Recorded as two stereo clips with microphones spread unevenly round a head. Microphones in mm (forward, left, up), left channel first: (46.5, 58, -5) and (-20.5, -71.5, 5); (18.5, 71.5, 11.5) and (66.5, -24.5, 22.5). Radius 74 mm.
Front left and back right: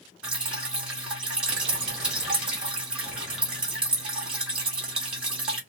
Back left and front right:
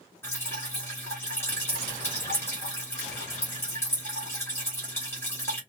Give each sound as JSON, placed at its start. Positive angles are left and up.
{"t": 0.2, "sound": "dripping", "azimuth_deg": 175, "distance_m": 1.3}